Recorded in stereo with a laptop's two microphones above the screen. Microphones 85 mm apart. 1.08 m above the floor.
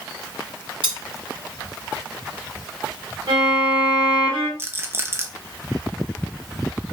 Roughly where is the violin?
Right.